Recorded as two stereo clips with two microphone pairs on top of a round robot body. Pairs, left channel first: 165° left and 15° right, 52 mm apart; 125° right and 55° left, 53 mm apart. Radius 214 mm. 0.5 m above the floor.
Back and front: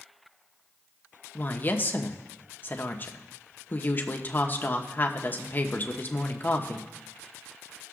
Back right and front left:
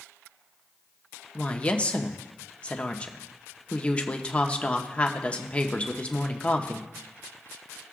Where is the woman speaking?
170° right, 1.3 m.